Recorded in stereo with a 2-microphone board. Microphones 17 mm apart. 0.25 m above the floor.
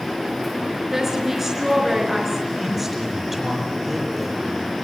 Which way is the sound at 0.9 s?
10° right (ahead or behind).